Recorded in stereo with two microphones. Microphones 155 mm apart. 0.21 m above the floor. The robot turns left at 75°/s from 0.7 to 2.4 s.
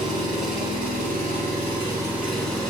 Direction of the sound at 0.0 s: 60° right.